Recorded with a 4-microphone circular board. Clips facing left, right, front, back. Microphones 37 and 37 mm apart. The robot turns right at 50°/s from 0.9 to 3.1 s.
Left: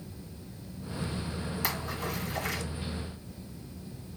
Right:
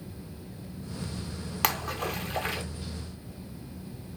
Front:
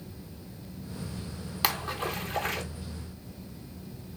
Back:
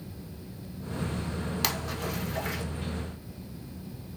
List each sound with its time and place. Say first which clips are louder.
1.6 s a splash: right 7 dB, front 6 dB; 80° right, 0.6 m; by 2.6 s 30° right, 0.6 m